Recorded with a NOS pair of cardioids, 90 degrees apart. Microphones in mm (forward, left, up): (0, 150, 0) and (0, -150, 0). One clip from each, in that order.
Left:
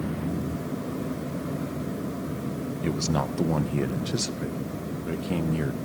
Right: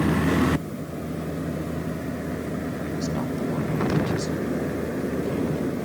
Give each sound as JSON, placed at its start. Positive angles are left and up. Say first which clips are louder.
{"t": 2.8, "sound": "a man speaking", "louder": "left 5 dB", "azimuth_deg": 50, "distance_m": 1.1}